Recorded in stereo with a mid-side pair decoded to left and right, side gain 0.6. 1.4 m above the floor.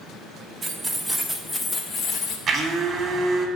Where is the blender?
40° right, 1.4 m.